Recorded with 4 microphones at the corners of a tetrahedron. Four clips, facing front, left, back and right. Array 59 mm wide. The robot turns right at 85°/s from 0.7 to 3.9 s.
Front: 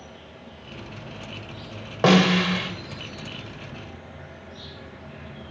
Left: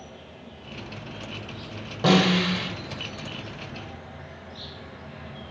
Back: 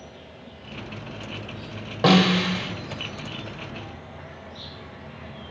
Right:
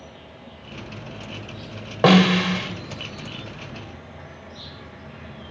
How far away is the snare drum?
About 1.1 m.